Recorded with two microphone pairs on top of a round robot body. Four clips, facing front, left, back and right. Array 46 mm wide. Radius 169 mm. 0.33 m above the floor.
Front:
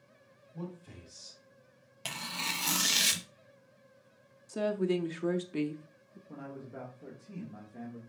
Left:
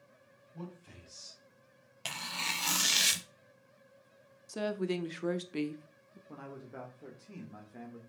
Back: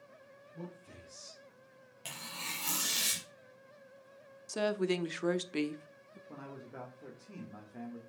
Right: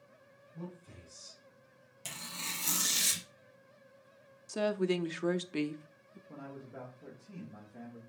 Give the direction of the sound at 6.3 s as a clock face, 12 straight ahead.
8 o'clock.